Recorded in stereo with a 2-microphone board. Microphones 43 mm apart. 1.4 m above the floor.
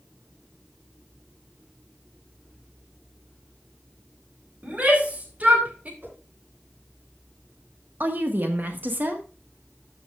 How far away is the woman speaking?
About 1.4 m.